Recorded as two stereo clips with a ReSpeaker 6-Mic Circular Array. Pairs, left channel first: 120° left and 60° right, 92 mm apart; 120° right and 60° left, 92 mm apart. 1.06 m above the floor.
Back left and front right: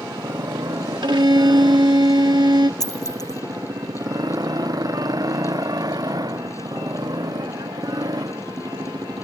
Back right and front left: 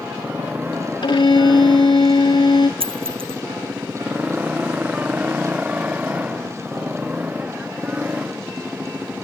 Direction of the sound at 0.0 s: 15° right.